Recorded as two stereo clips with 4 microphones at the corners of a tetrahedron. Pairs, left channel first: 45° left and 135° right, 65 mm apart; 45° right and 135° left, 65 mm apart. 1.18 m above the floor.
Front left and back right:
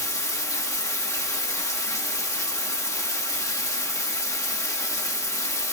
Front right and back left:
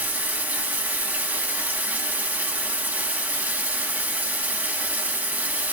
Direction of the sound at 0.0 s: 75° left.